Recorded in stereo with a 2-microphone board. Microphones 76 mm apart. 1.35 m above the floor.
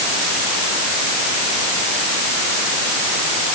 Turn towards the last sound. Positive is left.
No sound to turn to.